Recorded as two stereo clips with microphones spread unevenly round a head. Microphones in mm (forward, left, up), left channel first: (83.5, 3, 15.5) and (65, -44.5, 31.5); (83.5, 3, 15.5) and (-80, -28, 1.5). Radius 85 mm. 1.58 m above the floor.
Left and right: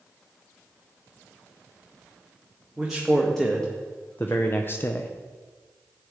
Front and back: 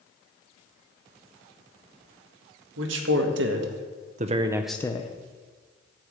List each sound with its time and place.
2.8 s a man speaking: 165° left, 1.7 m; by 5.1 s 20° left, 0.6 m